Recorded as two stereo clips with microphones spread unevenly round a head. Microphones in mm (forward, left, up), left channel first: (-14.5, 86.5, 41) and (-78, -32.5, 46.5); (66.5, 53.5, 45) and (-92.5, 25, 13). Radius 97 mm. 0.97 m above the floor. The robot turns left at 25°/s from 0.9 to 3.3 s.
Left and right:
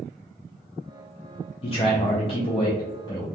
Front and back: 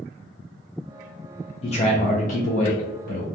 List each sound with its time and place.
1.6 s a man speaking: 60° left, 0.5 m; by 3.2 s 20° left, 0.5 m